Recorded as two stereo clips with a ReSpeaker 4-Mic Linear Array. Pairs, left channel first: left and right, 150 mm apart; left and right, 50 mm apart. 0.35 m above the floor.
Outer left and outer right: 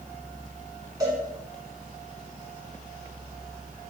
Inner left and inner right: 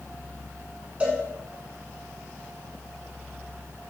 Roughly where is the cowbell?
Right.